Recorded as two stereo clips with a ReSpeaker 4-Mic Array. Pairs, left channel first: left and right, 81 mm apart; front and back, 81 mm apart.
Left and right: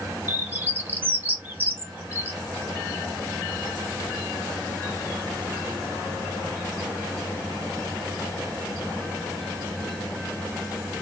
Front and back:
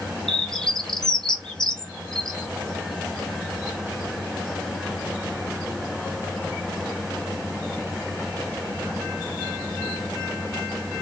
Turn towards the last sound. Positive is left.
turn(degrees=-75)